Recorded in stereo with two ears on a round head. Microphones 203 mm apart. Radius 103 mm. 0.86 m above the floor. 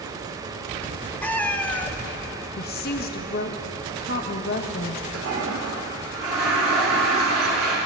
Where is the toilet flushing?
70° right (ahead or behind), 2.5 m.